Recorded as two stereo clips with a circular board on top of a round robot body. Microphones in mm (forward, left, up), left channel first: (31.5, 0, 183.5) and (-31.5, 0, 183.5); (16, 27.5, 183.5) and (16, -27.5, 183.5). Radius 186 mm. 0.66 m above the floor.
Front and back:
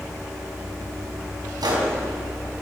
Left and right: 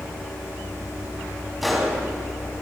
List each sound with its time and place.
1.6 s a gunshot: straight behind, 5 m